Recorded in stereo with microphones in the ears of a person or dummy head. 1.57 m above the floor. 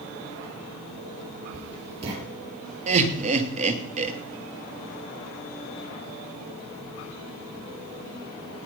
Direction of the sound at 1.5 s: 35° right (ahead or behind).